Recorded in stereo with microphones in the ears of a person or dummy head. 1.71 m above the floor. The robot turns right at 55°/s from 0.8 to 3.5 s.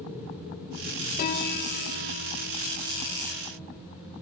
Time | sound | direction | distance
1.2 | a piano | 50° left | 1.5 m